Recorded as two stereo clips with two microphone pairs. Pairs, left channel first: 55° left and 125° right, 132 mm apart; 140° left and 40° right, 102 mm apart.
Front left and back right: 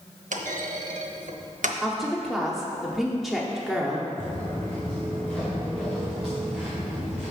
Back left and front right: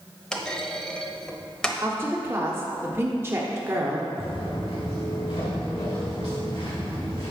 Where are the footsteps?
125° left, 2 m; by 7.3 s 150° left, 3.5 m.